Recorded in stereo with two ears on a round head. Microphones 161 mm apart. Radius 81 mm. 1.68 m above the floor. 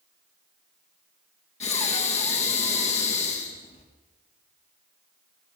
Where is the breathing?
45° left (ahead or behind), 3 m.